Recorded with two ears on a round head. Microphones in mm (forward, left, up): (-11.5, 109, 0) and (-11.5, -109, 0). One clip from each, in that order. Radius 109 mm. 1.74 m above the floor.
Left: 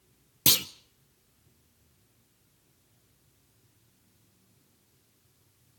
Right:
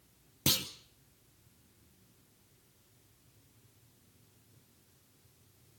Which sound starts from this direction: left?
A clunk, at 0.5 s.